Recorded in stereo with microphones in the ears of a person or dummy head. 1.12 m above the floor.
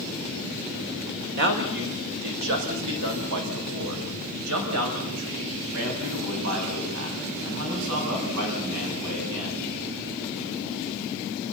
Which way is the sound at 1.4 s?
65° right (ahead or behind).